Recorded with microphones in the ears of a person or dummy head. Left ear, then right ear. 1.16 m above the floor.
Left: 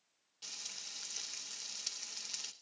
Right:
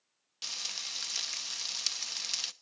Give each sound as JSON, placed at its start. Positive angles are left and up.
{"t": 0.4, "sound": "frying", "side_deg": -55, "distance_m": 0.7}